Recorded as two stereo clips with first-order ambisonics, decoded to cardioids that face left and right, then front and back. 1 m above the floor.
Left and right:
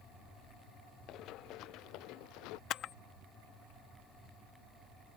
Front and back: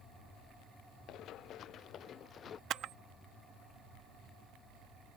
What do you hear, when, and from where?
1.1 s running footsteps: 45° left; by 2.6 s 65° left
2.7 s a camera shutter: 135° left